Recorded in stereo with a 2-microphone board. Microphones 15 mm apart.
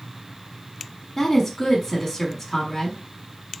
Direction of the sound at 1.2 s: 15° left (ahead or behind).